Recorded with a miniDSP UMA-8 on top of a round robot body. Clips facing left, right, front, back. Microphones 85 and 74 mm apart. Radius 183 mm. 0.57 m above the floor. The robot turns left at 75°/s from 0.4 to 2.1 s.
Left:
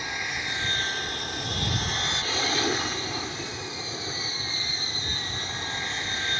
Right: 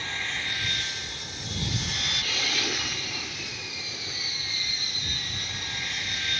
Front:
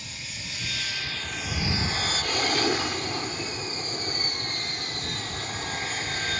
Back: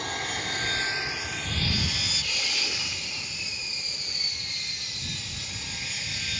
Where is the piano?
No piano in this recording.